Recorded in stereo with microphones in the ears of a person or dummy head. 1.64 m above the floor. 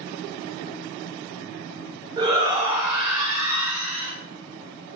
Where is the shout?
20° right (ahead or behind), 1.1 m.